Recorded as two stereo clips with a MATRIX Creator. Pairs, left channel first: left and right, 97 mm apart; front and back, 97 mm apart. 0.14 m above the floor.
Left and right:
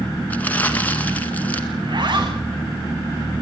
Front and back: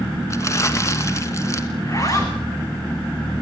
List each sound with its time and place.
0.3 s crumpling: 30° left, 2 m
1.8 s a zipper: 55° right, 4 m